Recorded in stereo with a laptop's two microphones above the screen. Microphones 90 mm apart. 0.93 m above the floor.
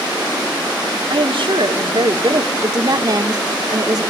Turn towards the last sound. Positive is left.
turn(degrees=-45)  # may be behind; listen again after turning